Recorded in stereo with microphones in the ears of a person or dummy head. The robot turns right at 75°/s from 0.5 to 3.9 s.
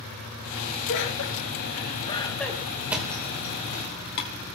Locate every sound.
0.9 s laughter: 60° left (ahead or behind), 1.8 m; by 2.8 s 25° right (ahead or behind), 1.8 m
2.9 s a thud: 10° right (ahead or behind), 2 m; by 4.3 s 60° left (ahead or behind), 2 m